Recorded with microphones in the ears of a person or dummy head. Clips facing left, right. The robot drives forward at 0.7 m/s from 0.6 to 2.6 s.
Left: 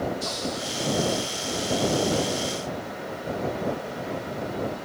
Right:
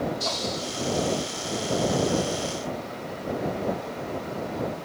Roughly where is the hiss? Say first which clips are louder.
Even; right.